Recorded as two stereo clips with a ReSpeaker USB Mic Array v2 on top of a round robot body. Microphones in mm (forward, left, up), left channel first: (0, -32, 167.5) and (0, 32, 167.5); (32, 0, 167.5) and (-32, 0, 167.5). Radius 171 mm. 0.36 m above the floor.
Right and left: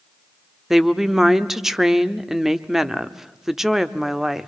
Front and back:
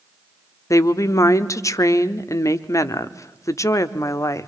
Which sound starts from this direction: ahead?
A woman speaking, at 0.7 s.